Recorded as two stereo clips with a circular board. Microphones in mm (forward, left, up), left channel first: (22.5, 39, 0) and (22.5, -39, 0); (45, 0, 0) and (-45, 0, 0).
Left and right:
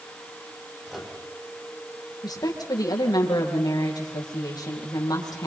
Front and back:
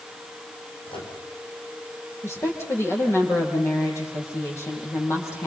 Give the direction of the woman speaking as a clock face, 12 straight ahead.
10 o'clock.